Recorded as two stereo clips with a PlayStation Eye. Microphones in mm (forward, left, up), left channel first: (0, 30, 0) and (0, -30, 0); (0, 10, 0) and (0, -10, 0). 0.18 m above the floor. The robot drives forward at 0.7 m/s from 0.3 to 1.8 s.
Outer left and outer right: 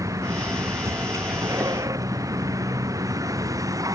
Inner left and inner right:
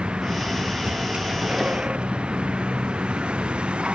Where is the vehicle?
65° right (ahead or behind); by 4.0 s 70° right (ahead or behind).